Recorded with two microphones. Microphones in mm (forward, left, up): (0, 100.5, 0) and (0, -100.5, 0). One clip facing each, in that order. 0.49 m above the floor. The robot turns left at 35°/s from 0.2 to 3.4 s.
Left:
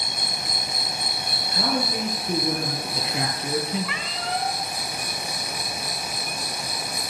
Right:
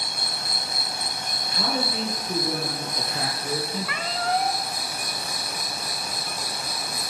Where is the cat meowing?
50° right (ahead or behind), 1.1 m.